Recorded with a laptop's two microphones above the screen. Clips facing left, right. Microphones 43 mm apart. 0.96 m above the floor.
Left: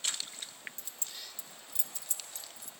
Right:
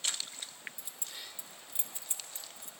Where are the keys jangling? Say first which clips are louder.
Even; 10° right (ahead or behind), 2 m; by 2.7 s 35° right (ahead or behind), 3.5 m.